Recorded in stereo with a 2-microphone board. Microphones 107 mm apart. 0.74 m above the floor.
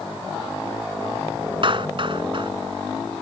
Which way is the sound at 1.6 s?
50° right (ahead or behind).